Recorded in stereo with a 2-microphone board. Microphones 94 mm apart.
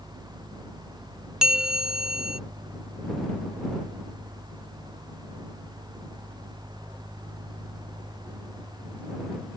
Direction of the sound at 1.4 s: 5° right (ahead or behind).